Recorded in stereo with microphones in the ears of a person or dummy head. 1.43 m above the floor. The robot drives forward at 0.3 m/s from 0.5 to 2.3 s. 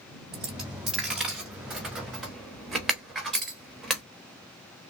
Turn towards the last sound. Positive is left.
turn(degrees=0)  # may be behind; listen again after turning